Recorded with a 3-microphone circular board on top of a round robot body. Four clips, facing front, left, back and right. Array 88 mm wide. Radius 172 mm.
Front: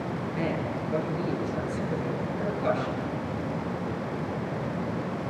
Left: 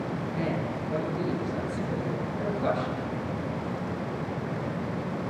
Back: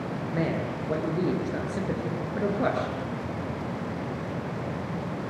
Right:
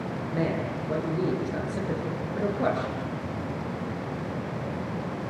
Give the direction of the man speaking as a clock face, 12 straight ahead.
5 o'clock.